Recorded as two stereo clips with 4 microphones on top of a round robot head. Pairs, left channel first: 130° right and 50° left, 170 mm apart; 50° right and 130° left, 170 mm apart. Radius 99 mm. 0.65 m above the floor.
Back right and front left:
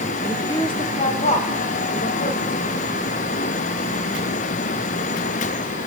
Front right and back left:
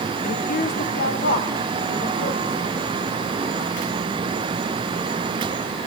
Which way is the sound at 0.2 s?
50° right.